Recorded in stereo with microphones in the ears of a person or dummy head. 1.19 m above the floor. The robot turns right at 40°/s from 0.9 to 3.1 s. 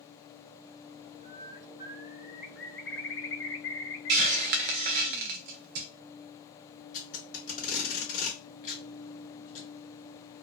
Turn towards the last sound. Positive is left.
turn(degrees=45)  # may be behind; listen again after turning